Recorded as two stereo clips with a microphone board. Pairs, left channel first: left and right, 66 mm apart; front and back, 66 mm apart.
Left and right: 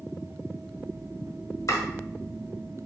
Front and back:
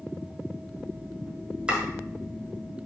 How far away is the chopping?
About 1.2 m.